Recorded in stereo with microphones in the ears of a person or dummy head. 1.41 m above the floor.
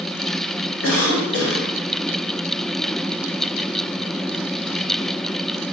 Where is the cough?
80° left, 1.2 m.